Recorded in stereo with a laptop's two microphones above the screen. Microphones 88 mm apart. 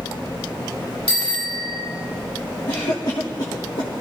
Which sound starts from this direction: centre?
A bicycle bell, at 1.1 s.